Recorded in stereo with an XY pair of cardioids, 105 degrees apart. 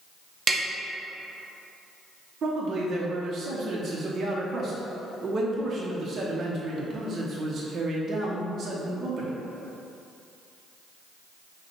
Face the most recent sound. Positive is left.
turn(degrees=-50)